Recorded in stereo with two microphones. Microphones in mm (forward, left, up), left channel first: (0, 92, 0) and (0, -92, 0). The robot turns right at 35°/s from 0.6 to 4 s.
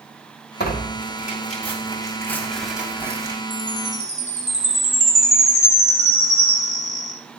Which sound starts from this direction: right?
A chime, at 3.5 s.